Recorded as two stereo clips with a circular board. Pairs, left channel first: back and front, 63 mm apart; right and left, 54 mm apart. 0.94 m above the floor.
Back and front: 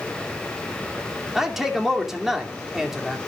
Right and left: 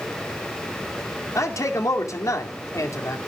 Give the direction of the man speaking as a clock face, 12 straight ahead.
3 o'clock.